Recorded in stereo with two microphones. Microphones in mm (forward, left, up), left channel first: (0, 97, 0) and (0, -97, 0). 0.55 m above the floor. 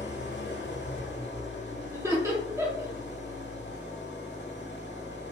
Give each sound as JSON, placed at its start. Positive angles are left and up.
{"t": 0.0, "sound": "an engine running", "side_deg": 80, "distance_m": 1.0}
{"t": 1.9, "sound": "laughter", "side_deg": -15, "distance_m": 0.8}